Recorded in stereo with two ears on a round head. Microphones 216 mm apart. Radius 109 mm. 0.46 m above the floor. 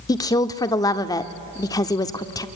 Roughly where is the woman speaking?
Centre.